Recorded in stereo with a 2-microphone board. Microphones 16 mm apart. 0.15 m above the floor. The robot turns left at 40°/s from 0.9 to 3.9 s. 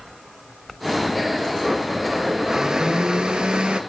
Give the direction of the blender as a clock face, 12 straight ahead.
12 o'clock.